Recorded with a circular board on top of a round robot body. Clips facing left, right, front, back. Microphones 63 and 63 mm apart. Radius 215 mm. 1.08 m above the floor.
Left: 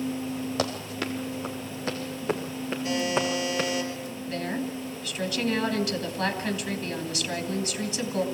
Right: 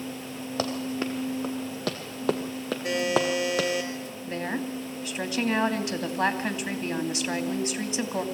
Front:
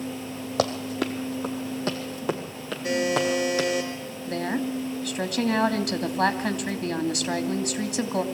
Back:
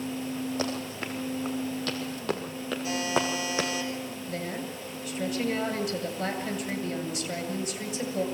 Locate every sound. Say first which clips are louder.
0.6 s running footsteps: right 1 dB, front 6 dB; 5° right, 1.7 m; by 3.7 s 110° right, 2.5 m
2.8 s a buzzer: right 2 dB, front 5 dB; 50° right, 5 m
4.3 s a woman speaking: even, front 10 dB; 25° right, 2.5 m